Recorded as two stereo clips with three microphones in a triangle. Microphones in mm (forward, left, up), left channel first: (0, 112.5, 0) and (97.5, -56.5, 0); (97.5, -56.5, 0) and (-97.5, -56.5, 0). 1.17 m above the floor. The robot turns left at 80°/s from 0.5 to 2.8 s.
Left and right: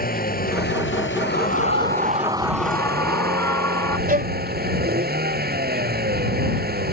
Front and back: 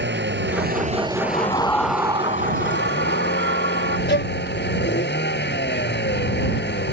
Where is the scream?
35° right; by 4.0 s 165° right.